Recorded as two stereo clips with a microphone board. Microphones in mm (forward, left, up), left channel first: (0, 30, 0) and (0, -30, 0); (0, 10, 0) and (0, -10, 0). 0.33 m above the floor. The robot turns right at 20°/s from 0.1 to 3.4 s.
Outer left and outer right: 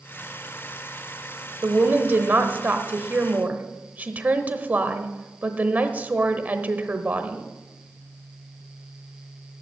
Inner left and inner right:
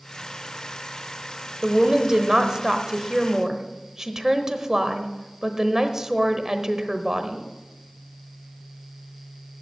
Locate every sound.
1.6 s a woman speaking: 90° right, 1.0 m; by 7.5 s 55° right, 1.0 m